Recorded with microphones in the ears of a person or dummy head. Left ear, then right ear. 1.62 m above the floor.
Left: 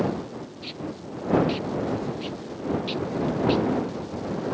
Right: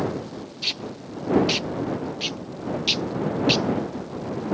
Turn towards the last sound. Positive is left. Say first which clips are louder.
# right 10 dB
turn(degrees=-45)  # may be behind; listen again after turning